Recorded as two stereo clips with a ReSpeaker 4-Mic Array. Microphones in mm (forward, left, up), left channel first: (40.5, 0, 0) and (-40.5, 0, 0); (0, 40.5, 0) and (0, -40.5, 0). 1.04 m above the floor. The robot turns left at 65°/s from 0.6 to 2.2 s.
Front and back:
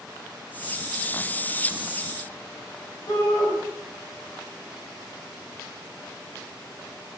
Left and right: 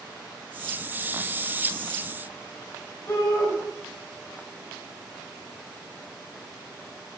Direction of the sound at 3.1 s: 35° left.